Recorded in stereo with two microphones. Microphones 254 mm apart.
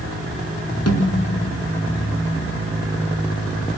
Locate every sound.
0.9 s a snare drum: 75° left (ahead or behind), 4 m